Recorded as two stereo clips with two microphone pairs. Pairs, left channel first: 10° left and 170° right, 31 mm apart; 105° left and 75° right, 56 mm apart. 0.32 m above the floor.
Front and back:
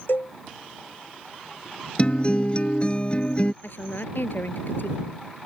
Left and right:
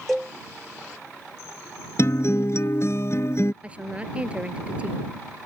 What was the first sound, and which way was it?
A cowbell, 15° left.